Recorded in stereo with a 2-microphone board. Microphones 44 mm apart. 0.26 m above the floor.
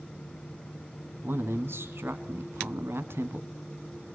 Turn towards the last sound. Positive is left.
turn(degrees=-65)  # may be behind; listen again after turning